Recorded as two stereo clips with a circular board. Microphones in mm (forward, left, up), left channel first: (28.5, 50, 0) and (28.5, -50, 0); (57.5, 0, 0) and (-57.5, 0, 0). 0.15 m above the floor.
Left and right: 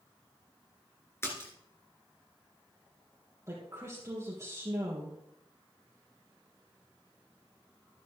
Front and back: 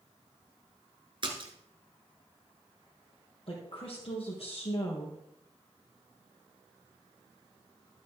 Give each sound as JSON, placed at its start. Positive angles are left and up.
{"t": 1.2, "sound": "a splash", "azimuth_deg": 150, "distance_m": 1.8}
{"t": 3.5, "sound": "a woman speaking", "azimuth_deg": -30, "distance_m": 2.5}